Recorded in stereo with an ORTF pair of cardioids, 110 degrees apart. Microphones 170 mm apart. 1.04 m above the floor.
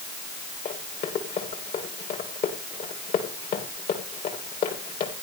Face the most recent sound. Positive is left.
turn(degrees=55)